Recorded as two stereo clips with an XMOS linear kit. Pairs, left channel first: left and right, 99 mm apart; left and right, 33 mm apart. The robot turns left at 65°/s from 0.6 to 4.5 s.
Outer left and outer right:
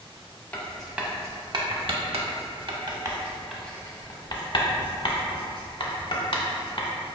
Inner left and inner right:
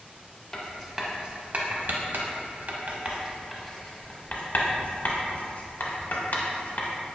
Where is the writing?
15° left (ahead or behind), 0.5 m; by 6.9 s 60° left (ahead or behind), 0.5 m.